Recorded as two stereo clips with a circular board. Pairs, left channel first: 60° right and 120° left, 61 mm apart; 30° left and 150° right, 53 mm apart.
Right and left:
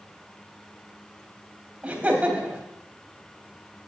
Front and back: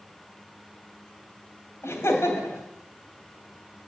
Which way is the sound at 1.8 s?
55° left.